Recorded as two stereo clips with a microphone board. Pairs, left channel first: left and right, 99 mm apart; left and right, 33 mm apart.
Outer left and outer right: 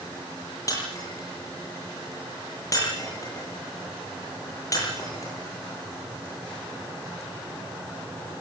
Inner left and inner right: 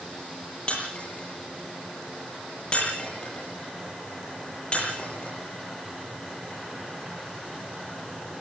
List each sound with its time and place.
0.7 s breaking glass: 35° left (ahead or behind), 9.5 m